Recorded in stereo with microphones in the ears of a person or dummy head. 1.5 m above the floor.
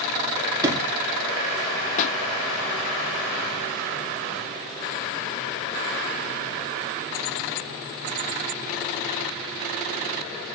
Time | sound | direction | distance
0.6 | a sliding door | 20° right (ahead or behind) | 2.5 m
2.0 | a pop | 40° left (ahead or behind) | 0.7 m